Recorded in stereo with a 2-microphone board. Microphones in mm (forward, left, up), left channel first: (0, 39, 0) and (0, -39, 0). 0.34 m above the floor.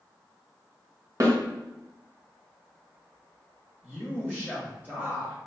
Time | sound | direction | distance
1.2 | a snare drum | 50° right (ahead or behind) | 1.5 m
3.8 | a man speaking | 15° right (ahead or behind) | 1.3 m